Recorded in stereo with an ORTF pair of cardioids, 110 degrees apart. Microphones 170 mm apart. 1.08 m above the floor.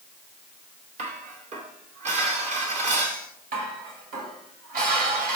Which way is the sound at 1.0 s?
45° right.